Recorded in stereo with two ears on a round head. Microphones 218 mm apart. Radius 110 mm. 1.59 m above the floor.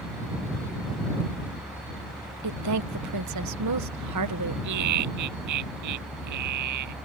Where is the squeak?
I don't hear a squeak.